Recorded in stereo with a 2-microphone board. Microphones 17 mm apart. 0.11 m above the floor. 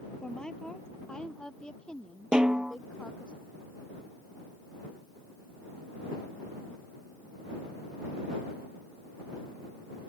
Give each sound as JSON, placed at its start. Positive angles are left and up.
{"t": 0.2, "sound": "a woman speaking", "side_deg": 60}
{"t": 2.3, "sound": "a snare drum", "side_deg": -60}